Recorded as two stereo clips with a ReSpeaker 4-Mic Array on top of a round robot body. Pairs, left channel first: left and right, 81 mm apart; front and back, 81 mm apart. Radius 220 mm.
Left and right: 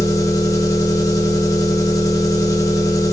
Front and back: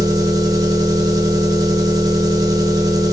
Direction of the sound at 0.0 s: 135° left.